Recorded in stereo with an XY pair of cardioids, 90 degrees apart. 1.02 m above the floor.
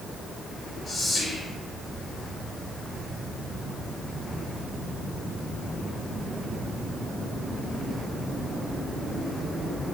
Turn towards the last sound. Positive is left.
turn(degrees=55)